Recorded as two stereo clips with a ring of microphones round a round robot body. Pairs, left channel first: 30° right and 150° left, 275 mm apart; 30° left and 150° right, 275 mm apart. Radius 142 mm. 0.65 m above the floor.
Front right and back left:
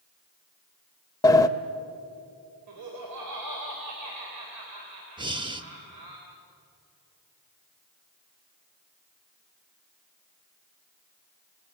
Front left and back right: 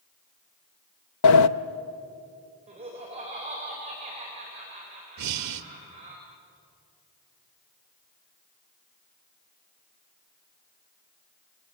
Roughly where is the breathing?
Behind right.